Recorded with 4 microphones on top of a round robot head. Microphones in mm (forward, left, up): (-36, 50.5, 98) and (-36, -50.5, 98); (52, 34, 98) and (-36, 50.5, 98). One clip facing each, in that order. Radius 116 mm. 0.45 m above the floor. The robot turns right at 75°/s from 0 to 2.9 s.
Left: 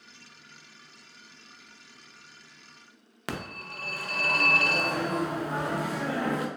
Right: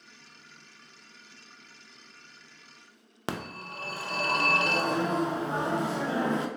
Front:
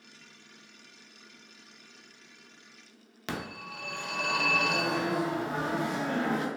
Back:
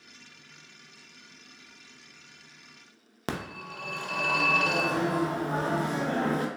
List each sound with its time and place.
3.3 s a phone ringing: 150° right, 0.5 m